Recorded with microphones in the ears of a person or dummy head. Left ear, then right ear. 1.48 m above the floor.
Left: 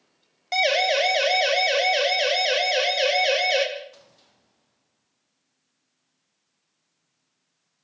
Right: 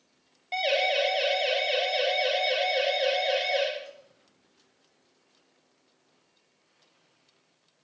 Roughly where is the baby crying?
I don't hear a baby crying.